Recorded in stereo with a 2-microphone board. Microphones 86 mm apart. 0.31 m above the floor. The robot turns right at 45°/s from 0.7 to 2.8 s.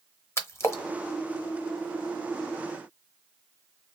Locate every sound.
0.4 s a splash: 30° left (ahead or behind), 0.7 m